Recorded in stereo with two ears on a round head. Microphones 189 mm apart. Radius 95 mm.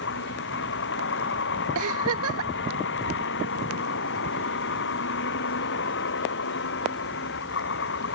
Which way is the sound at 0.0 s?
65° left (ahead or behind).